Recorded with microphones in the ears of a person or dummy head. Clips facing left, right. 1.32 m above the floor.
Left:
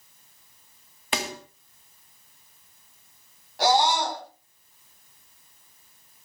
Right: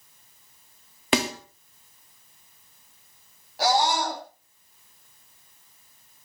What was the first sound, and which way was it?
A snare drum, 60° right (ahead or behind).